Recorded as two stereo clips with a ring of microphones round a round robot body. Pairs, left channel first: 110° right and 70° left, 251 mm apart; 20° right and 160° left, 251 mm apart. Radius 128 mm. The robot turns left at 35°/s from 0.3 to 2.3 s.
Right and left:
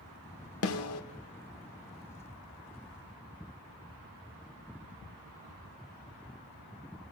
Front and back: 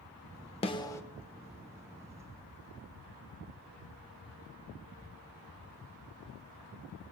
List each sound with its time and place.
0.6 s a snare drum: 90° right, 1.1 m; by 1.0 s 100° right, 1.1 m